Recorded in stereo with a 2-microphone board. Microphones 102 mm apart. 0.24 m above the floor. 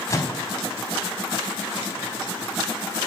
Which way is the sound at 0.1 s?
30° left (ahead or behind).